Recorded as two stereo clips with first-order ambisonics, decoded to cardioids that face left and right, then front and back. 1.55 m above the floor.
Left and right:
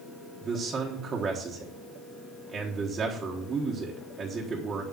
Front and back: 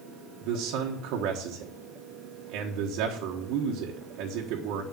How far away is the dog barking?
No dog barking in this recording.